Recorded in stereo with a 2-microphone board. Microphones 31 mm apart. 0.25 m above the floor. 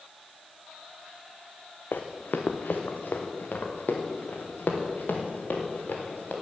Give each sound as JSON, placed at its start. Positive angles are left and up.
{"t": 1.9, "sound": "running footsteps", "side_deg": 80, "distance_m": 1.2}